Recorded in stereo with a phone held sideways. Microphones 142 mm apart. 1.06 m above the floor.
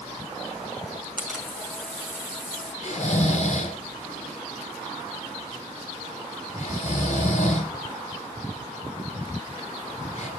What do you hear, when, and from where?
1.2 s a camera shutter: centre (ahead or behind), 6 m
2.8 s snoring: 60° left (ahead or behind), 4 m